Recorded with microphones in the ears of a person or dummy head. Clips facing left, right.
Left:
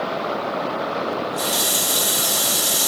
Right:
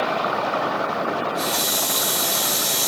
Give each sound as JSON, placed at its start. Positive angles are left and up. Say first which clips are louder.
{"t": 1.1, "sound": "a running tap", "louder": "even", "side_deg": 5, "distance_m": 0.7}